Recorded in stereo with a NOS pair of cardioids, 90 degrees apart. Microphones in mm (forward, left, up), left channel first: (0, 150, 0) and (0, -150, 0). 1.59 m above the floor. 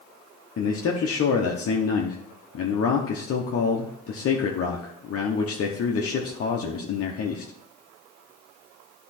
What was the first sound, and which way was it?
A man speaking, 50° left.